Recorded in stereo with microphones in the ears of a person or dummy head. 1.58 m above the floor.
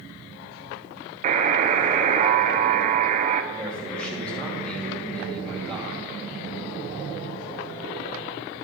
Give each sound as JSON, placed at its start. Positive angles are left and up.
{"t": 1.2, "sound": "a buzzer", "side_deg": -45, "distance_m": 0.8}
{"t": 3.5, "sound": "a man speaking", "side_deg": 5, "distance_m": 2.5}